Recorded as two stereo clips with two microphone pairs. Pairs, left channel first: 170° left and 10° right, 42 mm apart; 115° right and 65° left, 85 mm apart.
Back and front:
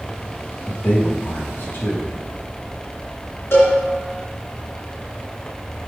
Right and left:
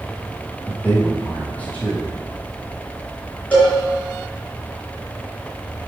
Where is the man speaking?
Straight behind, 2.5 m.